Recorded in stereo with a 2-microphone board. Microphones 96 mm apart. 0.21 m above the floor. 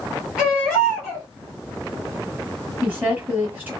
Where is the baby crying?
10° right (ahead or behind), 1.9 m.